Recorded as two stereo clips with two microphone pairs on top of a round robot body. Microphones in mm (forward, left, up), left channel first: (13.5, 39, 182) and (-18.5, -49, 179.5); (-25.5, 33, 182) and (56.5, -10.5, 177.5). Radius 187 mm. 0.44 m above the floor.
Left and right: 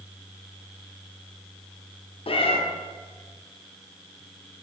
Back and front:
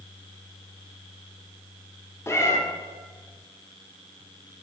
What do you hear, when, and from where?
2.3 s a cat meowing: 90° left, 0.7 m